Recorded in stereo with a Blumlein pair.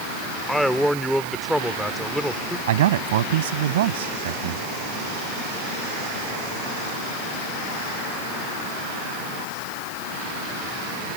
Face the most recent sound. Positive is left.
turn(degrees=-55)